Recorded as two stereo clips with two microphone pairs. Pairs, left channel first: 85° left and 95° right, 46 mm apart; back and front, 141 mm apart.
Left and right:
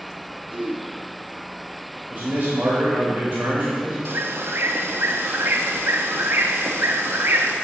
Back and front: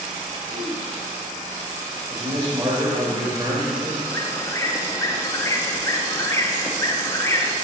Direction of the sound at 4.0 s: 110° right.